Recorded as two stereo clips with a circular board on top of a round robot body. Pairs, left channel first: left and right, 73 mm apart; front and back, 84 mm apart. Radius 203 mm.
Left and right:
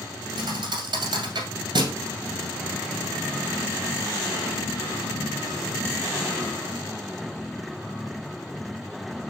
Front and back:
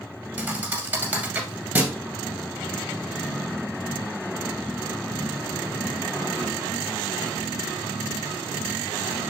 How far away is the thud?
About 1.9 m.